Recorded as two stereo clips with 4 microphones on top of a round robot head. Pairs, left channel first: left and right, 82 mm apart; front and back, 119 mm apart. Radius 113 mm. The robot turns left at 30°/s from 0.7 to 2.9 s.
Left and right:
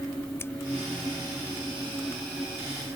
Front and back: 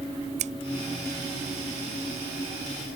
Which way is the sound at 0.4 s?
160° left.